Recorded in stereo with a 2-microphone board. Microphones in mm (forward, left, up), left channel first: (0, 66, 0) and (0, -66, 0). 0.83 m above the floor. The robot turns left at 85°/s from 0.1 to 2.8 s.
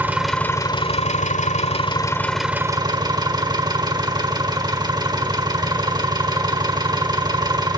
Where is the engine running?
165° right, 1.3 m; by 7.8 s 35° right, 1.3 m.